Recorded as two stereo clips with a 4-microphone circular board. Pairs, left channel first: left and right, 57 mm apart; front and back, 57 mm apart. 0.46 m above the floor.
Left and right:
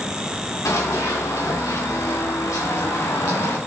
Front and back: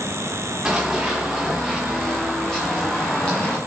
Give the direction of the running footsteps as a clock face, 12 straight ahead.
9 o'clock.